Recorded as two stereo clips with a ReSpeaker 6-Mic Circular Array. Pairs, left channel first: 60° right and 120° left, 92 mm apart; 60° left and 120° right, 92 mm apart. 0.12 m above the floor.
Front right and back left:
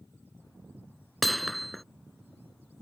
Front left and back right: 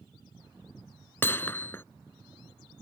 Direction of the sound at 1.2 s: 25° left.